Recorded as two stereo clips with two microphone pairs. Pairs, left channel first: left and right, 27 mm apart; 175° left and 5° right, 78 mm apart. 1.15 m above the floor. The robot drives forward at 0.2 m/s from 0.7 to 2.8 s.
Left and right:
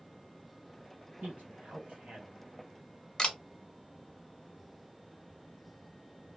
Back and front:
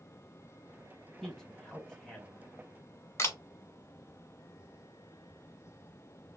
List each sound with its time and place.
1.2 s a man speaking: 95° right, 1.3 m; by 2.6 s 105° right, 1.3 m
3.2 s a camera shutter: 140° left, 0.6 m